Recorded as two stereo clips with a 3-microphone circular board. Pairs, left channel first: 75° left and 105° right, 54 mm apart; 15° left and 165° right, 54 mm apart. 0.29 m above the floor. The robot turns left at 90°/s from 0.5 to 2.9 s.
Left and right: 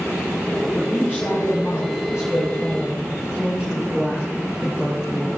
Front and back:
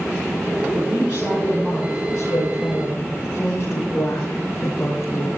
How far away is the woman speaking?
About 8.5 m.